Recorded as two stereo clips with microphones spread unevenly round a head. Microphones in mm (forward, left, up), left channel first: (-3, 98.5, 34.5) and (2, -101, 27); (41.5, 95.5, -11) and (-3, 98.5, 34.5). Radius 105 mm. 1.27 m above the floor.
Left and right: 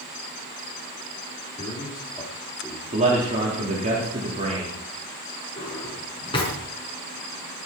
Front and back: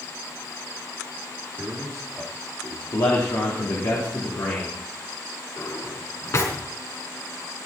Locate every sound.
1.6 s a man speaking: 150° left, 2.5 m; by 2.8 s 175° right, 3 m
2.9 s a man speaking: 35° right, 4 m
5.6 s a drawer: 25° left, 4.5 m